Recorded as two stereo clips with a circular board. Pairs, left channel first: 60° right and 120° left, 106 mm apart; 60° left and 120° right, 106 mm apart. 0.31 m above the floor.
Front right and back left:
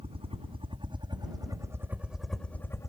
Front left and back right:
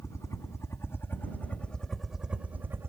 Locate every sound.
0.0 s a helicopter: 120° left; by 2.9 s 80° right